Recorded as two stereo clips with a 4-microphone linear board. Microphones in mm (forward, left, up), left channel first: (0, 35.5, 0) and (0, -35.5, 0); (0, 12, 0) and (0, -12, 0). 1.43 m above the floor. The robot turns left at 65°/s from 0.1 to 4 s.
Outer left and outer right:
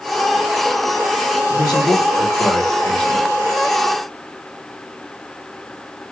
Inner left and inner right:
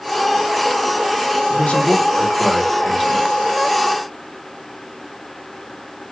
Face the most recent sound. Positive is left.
turn(degrees=-55)